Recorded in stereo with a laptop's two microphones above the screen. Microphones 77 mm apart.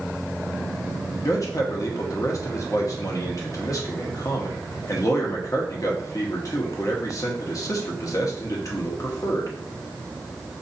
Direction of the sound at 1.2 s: 50° left (ahead or behind).